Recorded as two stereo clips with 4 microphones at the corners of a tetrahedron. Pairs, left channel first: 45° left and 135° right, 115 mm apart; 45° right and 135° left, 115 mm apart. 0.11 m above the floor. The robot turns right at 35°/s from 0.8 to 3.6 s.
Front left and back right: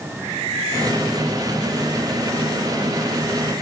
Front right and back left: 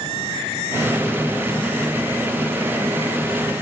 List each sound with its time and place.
Only background noise.